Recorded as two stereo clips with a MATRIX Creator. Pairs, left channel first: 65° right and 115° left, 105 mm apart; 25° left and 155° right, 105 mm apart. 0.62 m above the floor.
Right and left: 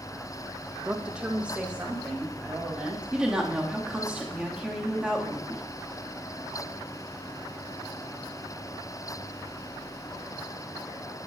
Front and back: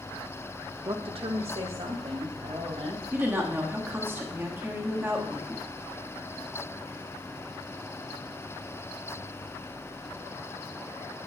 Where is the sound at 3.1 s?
175° left, 1.1 m.